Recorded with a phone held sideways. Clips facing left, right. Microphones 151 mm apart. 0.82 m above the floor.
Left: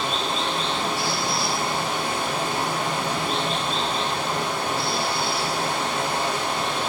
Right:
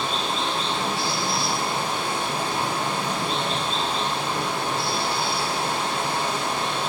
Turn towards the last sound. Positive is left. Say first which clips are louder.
# left 1 dB
turn(degrees=-30)  # may be behind; listen again after turning